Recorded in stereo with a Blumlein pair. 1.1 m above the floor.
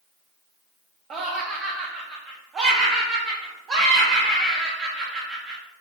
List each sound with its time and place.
1.1 s laughter: 20° right, 0.7 m